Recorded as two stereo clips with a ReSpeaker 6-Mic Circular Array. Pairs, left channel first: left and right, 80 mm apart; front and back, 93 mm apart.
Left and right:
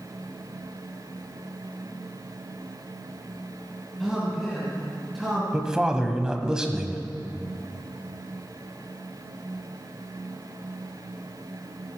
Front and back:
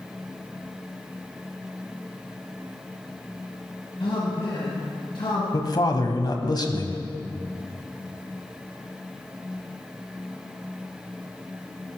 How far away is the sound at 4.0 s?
About 2.5 m.